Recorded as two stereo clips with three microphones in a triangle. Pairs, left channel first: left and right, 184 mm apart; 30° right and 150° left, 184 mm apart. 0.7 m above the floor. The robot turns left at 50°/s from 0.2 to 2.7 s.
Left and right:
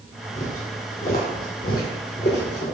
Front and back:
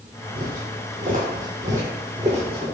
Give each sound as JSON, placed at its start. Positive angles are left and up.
{"t": 0.3, "sound": "footsteps", "azimuth_deg": 125, "distance_m": 1.4}